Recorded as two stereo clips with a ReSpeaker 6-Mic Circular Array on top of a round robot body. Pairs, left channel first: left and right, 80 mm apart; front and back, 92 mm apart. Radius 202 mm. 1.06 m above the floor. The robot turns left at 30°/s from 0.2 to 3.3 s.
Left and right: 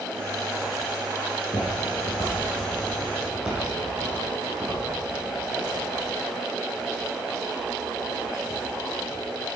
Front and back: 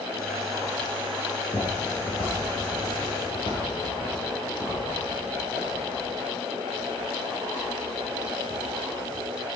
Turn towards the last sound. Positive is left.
turn(degrees=-20)